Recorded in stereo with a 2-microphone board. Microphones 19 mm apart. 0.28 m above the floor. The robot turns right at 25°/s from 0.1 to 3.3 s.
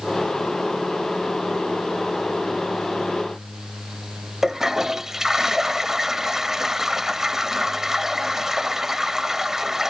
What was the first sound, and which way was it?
A toilet flushing, 20° right (ahead or behind).